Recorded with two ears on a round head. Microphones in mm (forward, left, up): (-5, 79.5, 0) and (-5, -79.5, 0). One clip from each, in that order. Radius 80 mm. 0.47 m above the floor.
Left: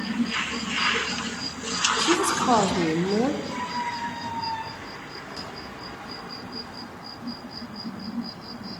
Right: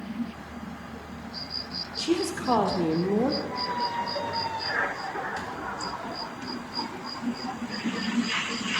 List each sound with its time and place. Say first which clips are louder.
2.0 s a woman speaking: left 1 dB; 30° left (ahead or behind), 1.7 m; by 3.4 s 10° left (ahead or behind), 1.2 m
3.5 s a squeak: even; centre (ahead or behind), 3 m